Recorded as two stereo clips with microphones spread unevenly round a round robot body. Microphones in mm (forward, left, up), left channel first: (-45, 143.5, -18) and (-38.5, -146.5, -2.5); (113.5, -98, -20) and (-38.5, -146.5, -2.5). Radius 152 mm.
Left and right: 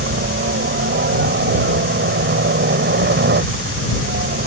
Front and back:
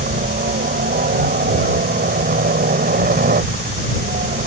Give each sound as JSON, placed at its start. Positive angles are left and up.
{"t": 0.0, "sound": "a helicopter", "azimuth_deg": -140}